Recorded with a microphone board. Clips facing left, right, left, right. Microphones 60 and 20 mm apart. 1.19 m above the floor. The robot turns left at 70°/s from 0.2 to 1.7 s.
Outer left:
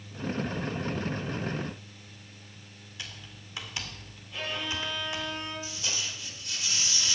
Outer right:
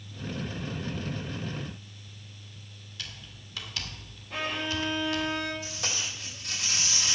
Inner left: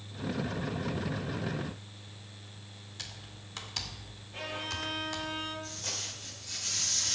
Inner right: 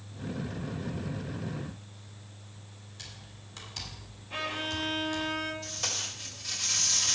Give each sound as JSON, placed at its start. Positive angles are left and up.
{"t": 3.0, "sound": "typing on a keyboard", "side_deg": 20, "distance_m": 1.9}
{"t": 4.3, "sound": "a violin", "side_deg": -80, "distance_m": 5.0}
{"t": 5.6, "sound": "tape being pulled", "side_deg": -80, "distance_m": 5.0}